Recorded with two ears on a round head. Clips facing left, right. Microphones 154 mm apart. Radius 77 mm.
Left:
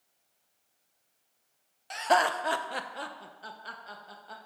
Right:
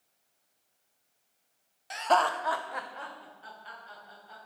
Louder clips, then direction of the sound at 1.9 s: Even; 5° right (ahead or behind).